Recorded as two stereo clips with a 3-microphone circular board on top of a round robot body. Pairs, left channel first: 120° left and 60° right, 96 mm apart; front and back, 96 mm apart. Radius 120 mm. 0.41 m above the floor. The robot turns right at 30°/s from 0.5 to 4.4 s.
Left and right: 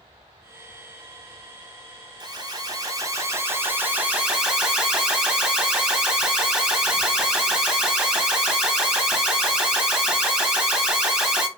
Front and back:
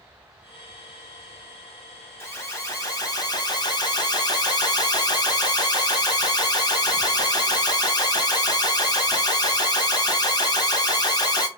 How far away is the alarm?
About 2 m.